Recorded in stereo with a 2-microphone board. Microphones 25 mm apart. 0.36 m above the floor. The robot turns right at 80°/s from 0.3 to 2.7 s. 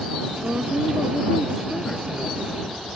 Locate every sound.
0.4 s a woman speaking: 90° right; by 2.9 s 95° left